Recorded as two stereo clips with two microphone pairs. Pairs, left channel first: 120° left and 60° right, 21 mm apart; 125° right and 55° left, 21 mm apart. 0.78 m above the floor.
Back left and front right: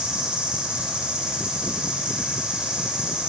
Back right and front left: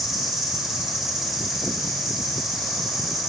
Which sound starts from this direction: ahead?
An insect, at 0.0 s.